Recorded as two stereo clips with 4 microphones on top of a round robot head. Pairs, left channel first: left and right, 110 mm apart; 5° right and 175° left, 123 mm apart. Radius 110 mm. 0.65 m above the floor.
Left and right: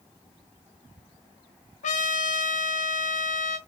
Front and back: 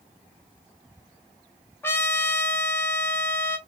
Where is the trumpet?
70° left, 0.6 m.